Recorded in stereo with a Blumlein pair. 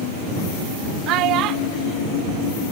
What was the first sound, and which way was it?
A child speaking, 40° right.